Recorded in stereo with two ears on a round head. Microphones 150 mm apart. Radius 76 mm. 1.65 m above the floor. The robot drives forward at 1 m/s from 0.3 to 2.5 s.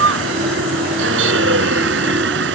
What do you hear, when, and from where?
0.0 s a vehicle: 80° right